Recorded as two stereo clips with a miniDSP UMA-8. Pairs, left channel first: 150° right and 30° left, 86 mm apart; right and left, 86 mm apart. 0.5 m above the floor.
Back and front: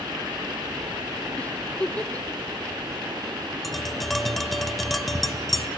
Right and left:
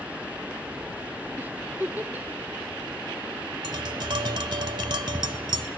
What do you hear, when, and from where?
1.4 s a giggle: 145° left, 0.9 m
3.6 s tapping: 120° left, 0.9 m